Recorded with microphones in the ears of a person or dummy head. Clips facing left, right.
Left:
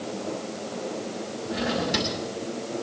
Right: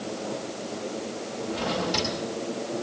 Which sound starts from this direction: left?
A drawer, at 1.5 s.